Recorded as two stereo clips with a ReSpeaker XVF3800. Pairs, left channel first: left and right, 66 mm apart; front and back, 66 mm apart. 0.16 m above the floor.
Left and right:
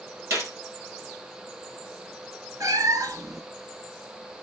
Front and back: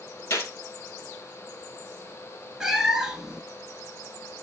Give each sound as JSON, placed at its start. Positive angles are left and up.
{"t": 0.3, "sound": "a gunshot", "azimuth_deg": -50, "distance_m": 2.0}
{"t": 2.6, "sound": "a cat meowing", "azimuth_deg": -100, "distance_m": 1.3}